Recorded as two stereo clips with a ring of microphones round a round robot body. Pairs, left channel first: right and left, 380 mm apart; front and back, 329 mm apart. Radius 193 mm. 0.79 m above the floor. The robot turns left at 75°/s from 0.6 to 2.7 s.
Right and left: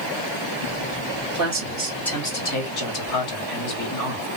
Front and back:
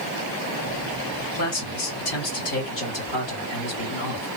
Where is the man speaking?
50° left, 2 m; by 4.3 s 55° right, 2 m.